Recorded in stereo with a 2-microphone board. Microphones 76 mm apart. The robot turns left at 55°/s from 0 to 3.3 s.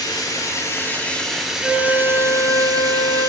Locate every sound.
0.0 s running water: 75° left, 1.5 m; by 3.3 s 105° right, 1.5 m
1.6 s a flute: 175° right, 1.5 m; by 3.3 s 95° left, 1.5 m